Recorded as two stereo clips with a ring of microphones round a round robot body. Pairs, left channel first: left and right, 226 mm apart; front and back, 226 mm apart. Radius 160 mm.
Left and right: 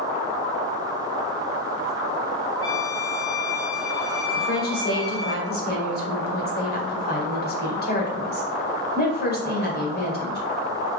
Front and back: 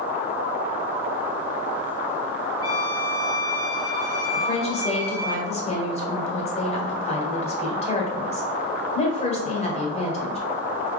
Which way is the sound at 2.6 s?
15° left.